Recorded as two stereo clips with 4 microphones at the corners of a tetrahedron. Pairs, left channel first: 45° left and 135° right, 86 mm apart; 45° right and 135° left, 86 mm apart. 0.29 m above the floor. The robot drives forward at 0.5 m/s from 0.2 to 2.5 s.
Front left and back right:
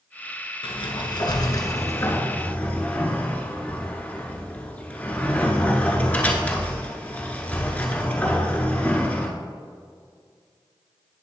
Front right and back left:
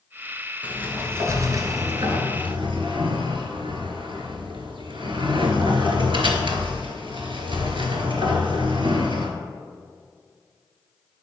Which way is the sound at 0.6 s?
60° left.